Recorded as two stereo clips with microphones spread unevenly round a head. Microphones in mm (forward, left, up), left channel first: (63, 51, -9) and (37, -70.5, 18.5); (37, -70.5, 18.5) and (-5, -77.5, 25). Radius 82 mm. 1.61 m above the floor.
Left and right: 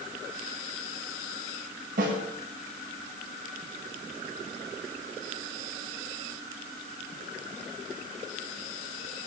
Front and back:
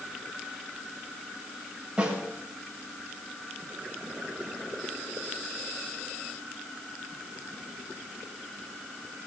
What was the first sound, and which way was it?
A snare drum, 100° right.